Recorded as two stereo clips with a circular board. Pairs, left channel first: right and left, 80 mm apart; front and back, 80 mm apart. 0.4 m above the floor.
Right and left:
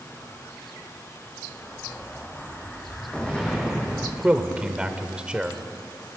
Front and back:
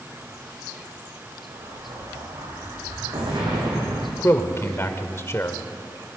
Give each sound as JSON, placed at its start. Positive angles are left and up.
{"t": 1.5, "sound": "an explosion", "azimuth_deg": -165, "distance_m": 4.5}
{"t": 4.2, "sound": "a man speaking", "azimuth_deg": 25, "distance_m": 1.3}